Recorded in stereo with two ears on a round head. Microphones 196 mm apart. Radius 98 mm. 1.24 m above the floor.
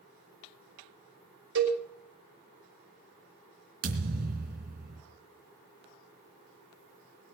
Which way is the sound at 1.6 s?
55° right (ahead or behind).